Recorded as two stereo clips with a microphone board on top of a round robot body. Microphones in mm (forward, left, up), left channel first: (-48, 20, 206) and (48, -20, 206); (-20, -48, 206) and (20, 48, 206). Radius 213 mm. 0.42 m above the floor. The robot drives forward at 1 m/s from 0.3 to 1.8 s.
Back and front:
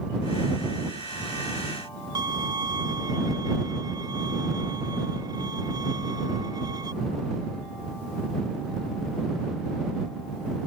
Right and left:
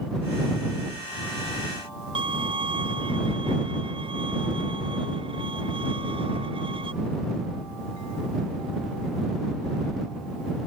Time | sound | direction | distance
2.1 | a violin | 30° left | ?